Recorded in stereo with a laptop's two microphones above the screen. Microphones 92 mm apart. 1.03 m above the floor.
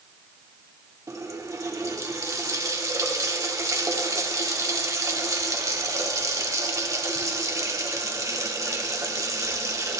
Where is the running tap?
35° right (ahead or behind), 1.7 m.